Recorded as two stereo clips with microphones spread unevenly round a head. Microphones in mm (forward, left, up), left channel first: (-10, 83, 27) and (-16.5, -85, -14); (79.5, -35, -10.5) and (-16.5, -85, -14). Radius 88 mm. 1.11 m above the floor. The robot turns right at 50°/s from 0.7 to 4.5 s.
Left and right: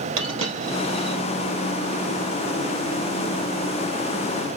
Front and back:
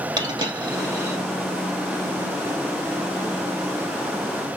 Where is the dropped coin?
105° right, 3 m; by 1.2 s 80° right, 3 m.